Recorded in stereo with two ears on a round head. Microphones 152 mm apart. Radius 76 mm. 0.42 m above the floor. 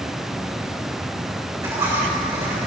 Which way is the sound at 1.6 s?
20° right (ahead or behind).